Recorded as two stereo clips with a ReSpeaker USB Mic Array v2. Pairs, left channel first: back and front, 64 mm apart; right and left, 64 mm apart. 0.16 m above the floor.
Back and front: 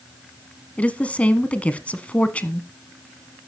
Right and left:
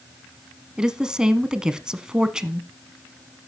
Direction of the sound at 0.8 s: 150° left.